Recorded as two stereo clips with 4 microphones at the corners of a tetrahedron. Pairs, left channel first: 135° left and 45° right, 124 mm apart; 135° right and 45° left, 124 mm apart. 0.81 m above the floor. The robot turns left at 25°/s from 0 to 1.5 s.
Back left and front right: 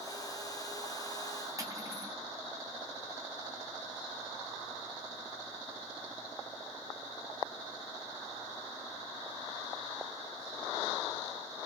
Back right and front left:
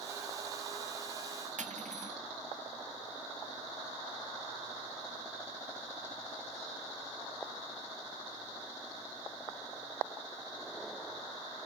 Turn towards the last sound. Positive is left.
turn(degrees=20)